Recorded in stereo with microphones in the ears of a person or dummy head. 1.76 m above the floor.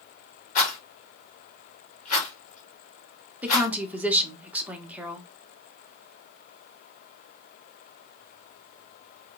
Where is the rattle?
45° left (ahead or behind), 2 m.